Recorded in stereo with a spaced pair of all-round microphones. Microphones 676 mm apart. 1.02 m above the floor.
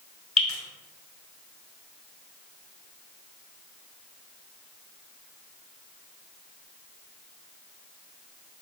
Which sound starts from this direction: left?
Dripping, at 0.4 s.